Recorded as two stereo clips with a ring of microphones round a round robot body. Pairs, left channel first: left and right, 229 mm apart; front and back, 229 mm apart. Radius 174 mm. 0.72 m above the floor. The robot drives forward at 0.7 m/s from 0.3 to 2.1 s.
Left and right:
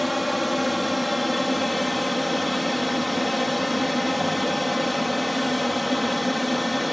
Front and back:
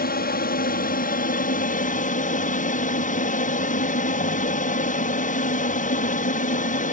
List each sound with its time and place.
0.0 s an aircraft: straight ahead